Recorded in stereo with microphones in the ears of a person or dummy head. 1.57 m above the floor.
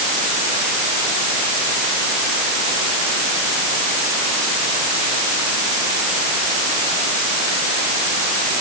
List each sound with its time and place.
Only background noise.